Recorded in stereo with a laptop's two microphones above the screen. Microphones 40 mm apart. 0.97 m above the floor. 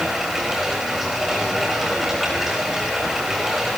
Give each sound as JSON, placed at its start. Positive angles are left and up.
{"t": 0.0, "sound": "running water", "side_deg": -5, "distance_m": 5.0}